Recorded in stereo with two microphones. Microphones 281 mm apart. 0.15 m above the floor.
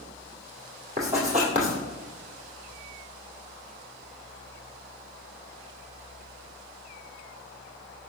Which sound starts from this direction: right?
Writing, at 1.0 s.